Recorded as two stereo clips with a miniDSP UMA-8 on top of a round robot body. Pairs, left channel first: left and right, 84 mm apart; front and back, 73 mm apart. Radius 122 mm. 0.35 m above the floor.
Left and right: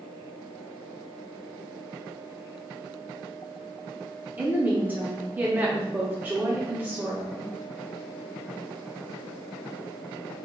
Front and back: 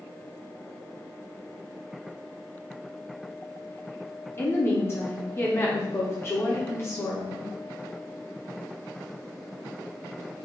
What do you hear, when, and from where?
4.4 s a woman speaking: 35° right, 1.0 m